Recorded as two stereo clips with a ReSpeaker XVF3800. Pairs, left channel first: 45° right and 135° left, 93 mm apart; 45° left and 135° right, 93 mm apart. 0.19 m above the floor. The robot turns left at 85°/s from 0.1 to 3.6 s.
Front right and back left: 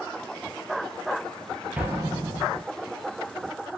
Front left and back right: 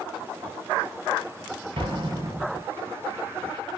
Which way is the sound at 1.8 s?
145° right.